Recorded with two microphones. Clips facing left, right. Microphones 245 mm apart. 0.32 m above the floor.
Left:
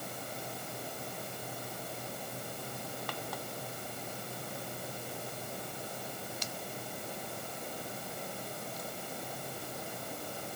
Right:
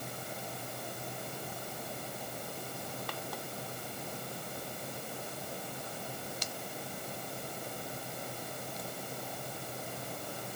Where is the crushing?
No crushing in this recording.